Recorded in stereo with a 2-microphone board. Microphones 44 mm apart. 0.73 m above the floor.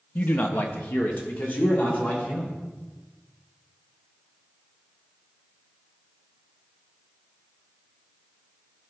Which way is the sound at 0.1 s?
40° left (ahead or behind).